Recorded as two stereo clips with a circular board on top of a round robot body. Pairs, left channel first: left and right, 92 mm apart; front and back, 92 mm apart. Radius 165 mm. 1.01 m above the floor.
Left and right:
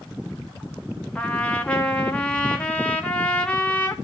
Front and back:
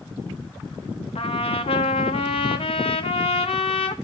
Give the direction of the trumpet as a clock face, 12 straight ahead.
12 o'clock.